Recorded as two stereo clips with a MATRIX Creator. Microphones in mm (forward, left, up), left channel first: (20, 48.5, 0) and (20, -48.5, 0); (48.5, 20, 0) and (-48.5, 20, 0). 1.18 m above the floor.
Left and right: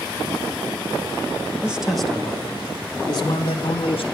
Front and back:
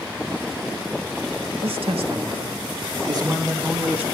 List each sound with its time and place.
1.6 s a man speaking: 170° right, 1.5 m; by 4.0 s 110° left, 2 m